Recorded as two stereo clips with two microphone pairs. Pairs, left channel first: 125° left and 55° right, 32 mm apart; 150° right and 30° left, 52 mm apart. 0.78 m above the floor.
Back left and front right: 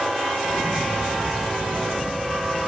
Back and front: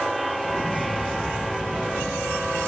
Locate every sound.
0.4 s an explosion: 70° right, 2.5 m